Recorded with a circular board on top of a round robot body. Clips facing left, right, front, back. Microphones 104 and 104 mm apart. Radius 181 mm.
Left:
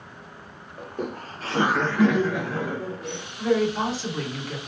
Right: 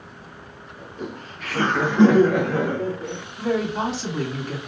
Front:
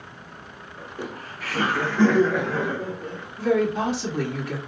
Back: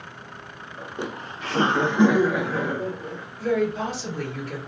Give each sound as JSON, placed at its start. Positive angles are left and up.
{"t": 0.8, "sound": "laughter", "azimuth_deg": 110, "distance_m": 0.9}
{"t": 3.4, "sound": "a woman speaking", "azimuth_deg": -30, "distance_m": 1.9}